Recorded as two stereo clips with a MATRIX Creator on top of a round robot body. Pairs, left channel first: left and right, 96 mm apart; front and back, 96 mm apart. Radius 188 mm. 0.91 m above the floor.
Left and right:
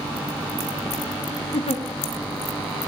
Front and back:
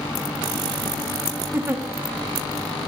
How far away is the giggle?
About 0.8 m.